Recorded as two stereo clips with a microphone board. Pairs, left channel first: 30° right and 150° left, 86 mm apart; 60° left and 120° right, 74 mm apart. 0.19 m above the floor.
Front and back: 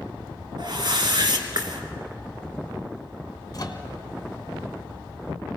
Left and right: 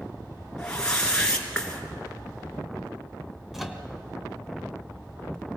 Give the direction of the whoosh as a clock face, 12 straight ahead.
7 o'clock.